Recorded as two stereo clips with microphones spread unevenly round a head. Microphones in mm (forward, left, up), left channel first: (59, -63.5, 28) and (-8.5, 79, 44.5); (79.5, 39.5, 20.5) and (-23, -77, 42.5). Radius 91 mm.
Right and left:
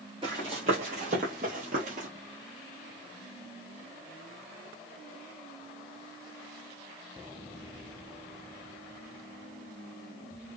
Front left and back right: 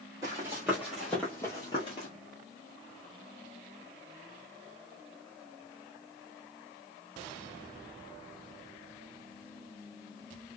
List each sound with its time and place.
0.2 s running footsteps: 165° left, 1.4 m; by 2.1 s 105° left, 1.2 m